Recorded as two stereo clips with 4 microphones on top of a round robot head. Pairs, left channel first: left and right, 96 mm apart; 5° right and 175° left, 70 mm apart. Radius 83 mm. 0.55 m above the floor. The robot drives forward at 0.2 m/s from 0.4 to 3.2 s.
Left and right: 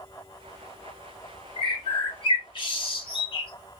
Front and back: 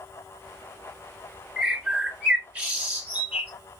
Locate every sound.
1.6 s a bird: 105° left, 2 m; by 3.5 s 115° left, 2 m